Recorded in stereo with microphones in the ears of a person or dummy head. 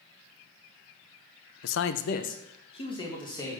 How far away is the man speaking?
About 0.9 m.